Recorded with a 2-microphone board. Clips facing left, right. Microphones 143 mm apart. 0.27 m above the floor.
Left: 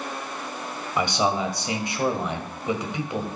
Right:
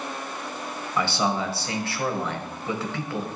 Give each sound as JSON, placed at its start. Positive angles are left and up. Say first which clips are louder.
{"t": 1.0, "sound": "a man speaking", "louder": "left 2 dB", "side_deg": 15, "distance_m": 1.4}